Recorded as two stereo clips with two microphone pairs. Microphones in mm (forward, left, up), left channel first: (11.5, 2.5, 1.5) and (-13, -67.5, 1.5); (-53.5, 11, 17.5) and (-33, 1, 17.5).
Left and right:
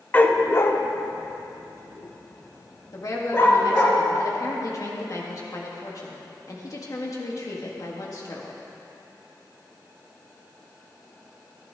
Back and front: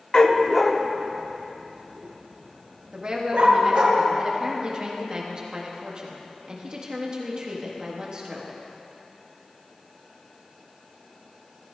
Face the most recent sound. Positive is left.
turn(degrees=35)